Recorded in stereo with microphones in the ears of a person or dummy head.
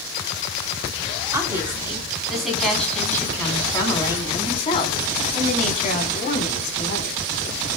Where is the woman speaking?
10° right (ahead or behind), 4 m; by 7.2 s 55° left (ahead or behind), 4.5 m.